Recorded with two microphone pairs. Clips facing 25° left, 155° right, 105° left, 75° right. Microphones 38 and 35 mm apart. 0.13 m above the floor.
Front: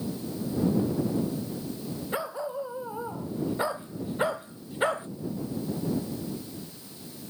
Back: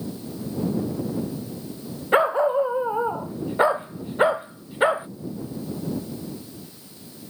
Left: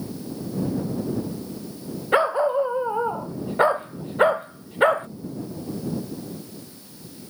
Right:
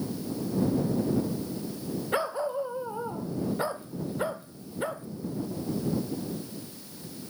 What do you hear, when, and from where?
2.1 s a dog barking: 155° left; by 5.1 s 130° left